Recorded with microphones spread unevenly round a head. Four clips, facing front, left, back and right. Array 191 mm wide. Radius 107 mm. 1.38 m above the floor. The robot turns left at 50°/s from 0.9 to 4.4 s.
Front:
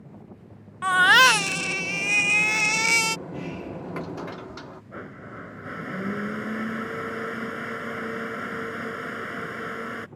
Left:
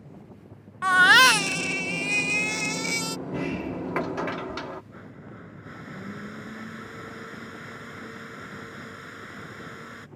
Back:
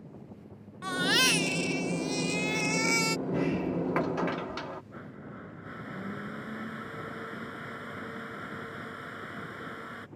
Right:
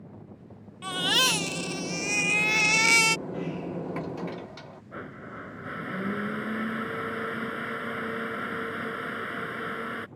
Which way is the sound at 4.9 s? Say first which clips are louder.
Right 4 dB, front 5 dB; 40° right.